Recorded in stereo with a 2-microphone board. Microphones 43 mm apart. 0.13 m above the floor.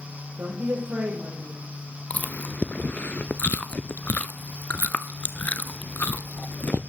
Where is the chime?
No chime in this recording.